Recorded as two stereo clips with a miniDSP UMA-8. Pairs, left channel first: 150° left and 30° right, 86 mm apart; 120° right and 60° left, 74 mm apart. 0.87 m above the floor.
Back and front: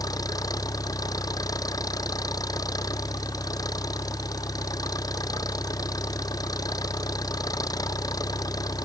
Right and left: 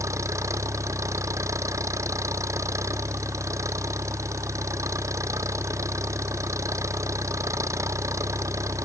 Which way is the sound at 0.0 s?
105° left.